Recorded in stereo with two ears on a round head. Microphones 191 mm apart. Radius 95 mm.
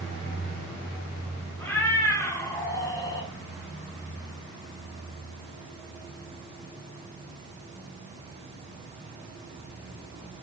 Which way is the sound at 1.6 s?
10° left (ahead or behind).